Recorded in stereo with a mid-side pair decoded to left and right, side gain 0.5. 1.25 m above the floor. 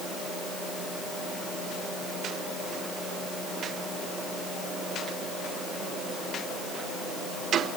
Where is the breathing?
I don't hear breathing.